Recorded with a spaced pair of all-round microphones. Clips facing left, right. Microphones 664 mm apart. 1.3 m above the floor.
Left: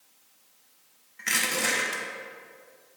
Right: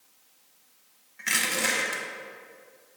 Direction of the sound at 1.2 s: 5° right (ahead or behind).